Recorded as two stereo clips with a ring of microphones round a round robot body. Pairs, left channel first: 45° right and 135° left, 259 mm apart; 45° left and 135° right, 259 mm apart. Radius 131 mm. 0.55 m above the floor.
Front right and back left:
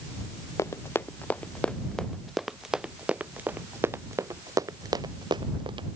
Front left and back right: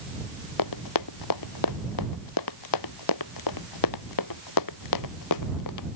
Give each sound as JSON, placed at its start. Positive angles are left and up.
{"t": 0.6, "sound": "running footsteps", "azimuth_deg": 35}